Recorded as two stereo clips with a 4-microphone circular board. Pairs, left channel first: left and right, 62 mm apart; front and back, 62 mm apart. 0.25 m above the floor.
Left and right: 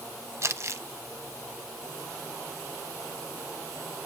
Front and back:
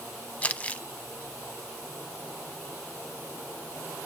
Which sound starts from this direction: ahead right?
Crumpling, at 0.4 s.